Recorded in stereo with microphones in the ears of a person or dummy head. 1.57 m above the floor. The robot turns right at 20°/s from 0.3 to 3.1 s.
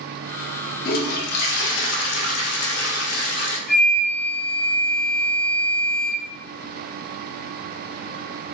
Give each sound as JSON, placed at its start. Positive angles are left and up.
{"t": 0.8, "sound": "a toilet flushing", "azimuth_deg": 60, "distance_m": 0.9}
{"t": 3.7, "sound": "a flute", "side_deg": 10, "distance_m": 1.4}